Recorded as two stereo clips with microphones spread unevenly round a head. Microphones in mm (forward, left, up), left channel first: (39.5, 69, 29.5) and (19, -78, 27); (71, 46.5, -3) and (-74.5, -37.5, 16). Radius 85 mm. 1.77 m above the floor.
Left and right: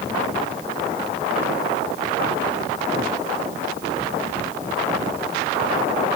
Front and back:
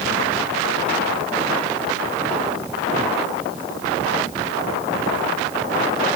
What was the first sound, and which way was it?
Only background noise.